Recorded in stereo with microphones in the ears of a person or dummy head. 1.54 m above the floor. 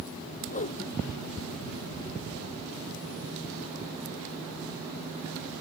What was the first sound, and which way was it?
A whoosh, 40° left (ahead or behind).